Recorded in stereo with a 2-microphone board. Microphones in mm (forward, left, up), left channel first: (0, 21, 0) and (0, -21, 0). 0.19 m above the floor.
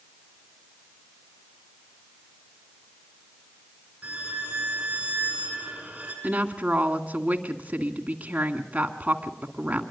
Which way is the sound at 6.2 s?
35° right (ahead or behind).